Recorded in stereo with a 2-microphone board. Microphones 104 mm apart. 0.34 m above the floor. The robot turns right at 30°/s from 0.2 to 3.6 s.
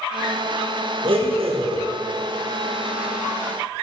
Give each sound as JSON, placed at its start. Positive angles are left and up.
{"t": 1.0, "sound": "a blender", "side_deg": -55, "distance_m": 3.0}